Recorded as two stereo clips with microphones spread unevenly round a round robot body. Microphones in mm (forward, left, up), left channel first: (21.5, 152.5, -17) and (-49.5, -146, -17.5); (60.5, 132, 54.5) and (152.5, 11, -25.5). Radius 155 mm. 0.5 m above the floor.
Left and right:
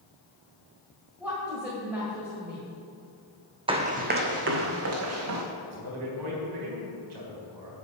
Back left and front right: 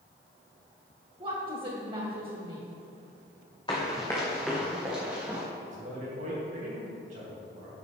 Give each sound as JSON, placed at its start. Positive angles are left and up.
{"t": 1.2, "sound": "a woman speaking", "azimuth_deg": -20, "distance_m": 1.8}
{"t": 3.7, "sound": "running footsteps", "azimuth_deg": -175, "distance_m": 1.2}
{"t": 5.6, "sound": "a man speaking", "azimuth_deg": -80, "distance_m": 3.5}